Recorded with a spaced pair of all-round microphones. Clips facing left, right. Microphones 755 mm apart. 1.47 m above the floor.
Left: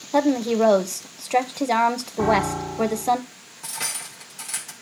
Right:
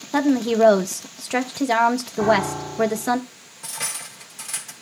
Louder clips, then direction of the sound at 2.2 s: Left 1 dB; 70° left (ahead or behind).